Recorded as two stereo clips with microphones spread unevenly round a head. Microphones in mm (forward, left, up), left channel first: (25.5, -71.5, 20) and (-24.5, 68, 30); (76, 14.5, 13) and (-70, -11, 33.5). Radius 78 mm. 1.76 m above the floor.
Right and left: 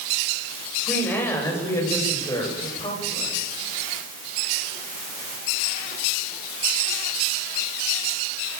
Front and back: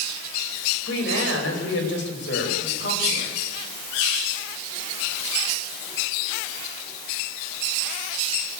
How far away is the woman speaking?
About 9.5 m.